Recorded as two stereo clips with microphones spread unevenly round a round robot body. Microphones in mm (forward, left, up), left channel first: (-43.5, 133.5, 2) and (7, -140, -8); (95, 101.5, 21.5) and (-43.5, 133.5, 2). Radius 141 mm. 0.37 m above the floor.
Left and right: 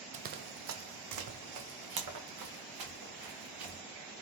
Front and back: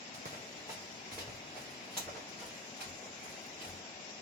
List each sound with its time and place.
0.1 s running footsteps: 140° right, 0.5 m; by 3.8 s 95° right, 2.5 m